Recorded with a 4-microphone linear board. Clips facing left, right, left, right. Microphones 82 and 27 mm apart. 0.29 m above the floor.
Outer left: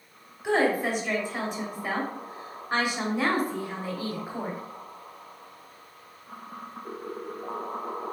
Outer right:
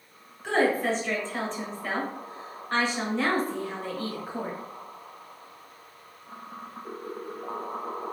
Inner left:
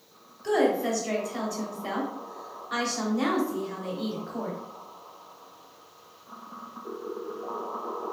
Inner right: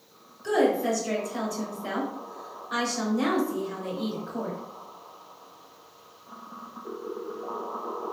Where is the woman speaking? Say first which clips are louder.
Even, inner right 1 dB; 15° left (ahead or behind), 0.9 m.